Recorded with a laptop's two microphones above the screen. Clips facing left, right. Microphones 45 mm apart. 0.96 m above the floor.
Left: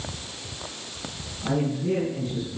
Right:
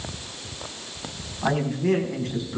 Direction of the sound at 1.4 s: 85° right.